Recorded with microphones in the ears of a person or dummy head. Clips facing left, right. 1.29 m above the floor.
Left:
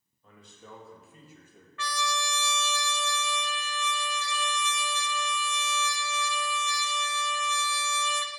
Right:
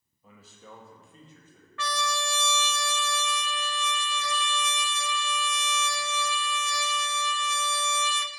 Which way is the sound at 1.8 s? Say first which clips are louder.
Right 2 dB; 50° right (ahead or behind).